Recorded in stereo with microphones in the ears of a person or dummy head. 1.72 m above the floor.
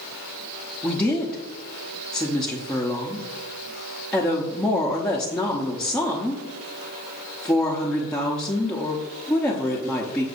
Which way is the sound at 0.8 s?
5° left (ahead or behind).